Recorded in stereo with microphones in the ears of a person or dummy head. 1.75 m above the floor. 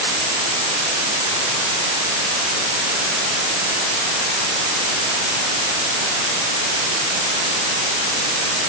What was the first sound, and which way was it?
Only background noise.